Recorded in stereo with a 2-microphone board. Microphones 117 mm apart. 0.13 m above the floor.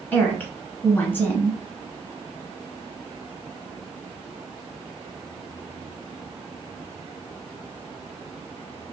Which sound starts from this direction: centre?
A woman speaking, at 0.1 s.